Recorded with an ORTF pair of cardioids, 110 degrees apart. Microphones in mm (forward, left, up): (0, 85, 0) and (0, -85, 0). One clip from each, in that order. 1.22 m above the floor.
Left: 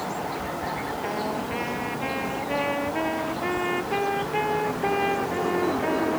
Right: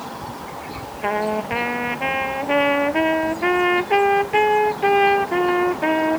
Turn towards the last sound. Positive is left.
turn(degrees=-55)